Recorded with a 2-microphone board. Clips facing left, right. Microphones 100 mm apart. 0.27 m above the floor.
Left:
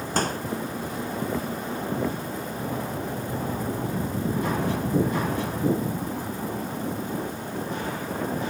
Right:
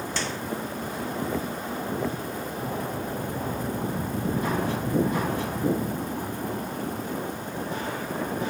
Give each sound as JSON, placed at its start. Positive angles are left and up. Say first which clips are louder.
{"t": 0.2, "sound": "a microwave", "louder": "left 9 dB", "side_deg": 45}